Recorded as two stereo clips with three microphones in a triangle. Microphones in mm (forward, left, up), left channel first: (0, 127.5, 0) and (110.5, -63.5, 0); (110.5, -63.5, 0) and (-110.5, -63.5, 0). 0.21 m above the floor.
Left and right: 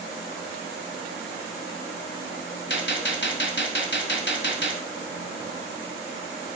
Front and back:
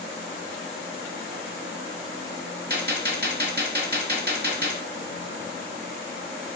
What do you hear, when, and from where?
2.7 s a gunshot: 145° left, 0.9 m